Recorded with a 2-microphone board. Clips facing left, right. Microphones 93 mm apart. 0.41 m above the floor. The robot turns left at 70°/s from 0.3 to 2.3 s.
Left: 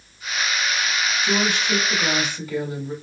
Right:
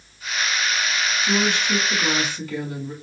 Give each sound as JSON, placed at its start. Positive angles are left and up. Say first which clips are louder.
{"t": 1.2, "sound": "a woman speaking", "louder": "right 1 dB", "azimuth_deg": 90, "distance_m": 3.0}